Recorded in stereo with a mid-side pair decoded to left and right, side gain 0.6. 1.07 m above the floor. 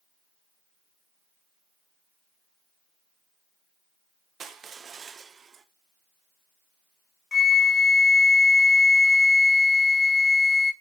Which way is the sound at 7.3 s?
25° left.